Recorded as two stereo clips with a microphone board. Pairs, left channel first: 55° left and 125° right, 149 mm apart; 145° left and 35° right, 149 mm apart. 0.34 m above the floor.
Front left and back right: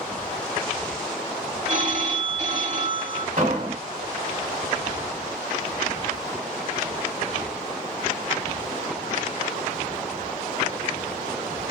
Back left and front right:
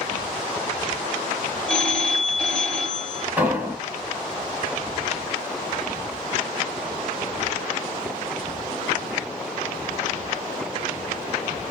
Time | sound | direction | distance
1.7 | a phone ringing | 135° right | 1.4 m
3.4 | an explosion | 110° right | 1.2 m